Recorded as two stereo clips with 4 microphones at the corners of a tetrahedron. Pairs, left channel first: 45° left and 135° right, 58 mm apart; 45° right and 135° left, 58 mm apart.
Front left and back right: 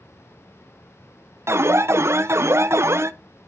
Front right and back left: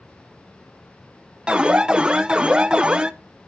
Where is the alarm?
155° right, 0.5 m.